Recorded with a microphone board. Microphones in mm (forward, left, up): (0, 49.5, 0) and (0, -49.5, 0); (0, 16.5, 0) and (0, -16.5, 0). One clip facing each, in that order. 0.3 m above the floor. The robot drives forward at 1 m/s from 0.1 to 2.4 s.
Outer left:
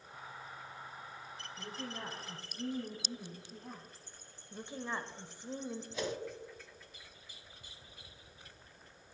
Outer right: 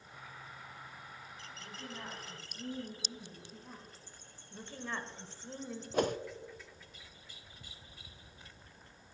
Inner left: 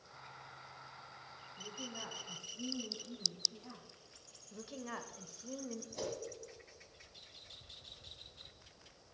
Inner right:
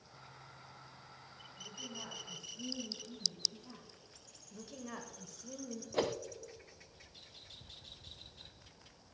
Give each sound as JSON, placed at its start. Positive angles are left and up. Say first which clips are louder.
{"t": 1.6, "sound": "a woman speaking", "louder": "outer left 4 dB, inner left 1 dB", "side_deg": 60, "distance_m": 4.5}
{"t": 4.5, "sound": "a woman speaking", "louder": "outer left 2 dB, inner left 2 dB", "side_deg": 15, "distance_m": 0.9}
{"t": 5.9, "sound": "a whoosh", "louder": "outer right 8 dB, inner right 8 dB", "side_deg": -50, "distance_m": 0.5}